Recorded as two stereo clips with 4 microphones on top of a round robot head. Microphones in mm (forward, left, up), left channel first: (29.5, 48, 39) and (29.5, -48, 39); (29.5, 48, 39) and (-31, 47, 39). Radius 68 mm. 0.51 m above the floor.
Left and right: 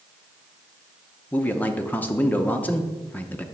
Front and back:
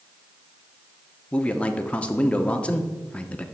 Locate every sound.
1.3 s a man speaking: 40° left, 0.7 m